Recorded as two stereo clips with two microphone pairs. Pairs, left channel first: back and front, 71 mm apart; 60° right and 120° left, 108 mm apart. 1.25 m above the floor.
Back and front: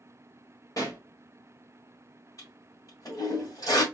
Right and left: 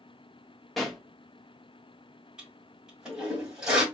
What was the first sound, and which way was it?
A pop, 150° right.